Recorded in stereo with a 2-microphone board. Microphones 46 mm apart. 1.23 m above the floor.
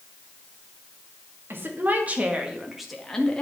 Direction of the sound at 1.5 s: 50° right (ahead or behind).